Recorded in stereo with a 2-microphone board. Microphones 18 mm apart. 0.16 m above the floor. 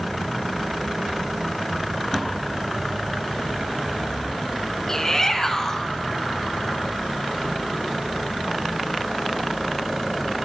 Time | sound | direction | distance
4.9 | a shout | 25° left (ahead or behind) | 2 m